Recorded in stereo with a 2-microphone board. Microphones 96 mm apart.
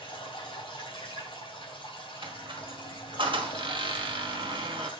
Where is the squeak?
65° right (ahead or behind), 1.3 m.